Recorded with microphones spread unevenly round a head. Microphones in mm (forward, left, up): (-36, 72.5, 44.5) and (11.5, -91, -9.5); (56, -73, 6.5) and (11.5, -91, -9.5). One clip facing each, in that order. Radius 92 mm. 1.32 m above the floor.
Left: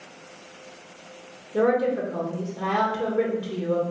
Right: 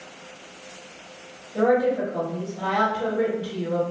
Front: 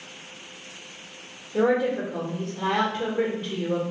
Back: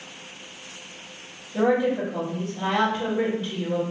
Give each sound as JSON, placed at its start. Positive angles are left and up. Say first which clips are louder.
{"t": 1.5, "sound": "a woman speaking", "louder": "right 1 dB, back 1 dB", "azimuth_deg": 90, "distance_m": 1.8}